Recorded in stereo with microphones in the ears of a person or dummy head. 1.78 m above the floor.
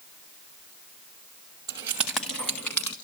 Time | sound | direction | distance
1.7 | keys jangling | 15° right (ahead or behind) | 0.9 m